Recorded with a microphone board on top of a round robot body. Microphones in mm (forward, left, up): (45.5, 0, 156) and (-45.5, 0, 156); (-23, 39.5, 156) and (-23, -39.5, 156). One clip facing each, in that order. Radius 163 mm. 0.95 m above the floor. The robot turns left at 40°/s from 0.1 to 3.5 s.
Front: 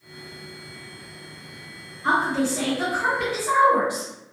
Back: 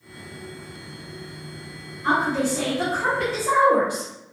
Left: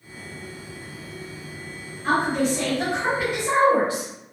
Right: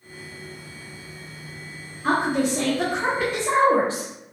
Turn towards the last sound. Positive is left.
turn(degrees=-150)